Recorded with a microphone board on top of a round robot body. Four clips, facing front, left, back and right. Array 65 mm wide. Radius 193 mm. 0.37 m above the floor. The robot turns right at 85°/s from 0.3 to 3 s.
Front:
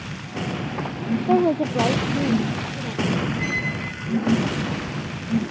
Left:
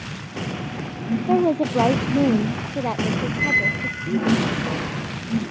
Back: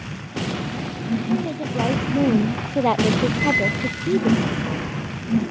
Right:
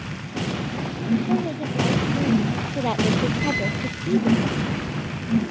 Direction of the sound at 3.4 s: 105° left.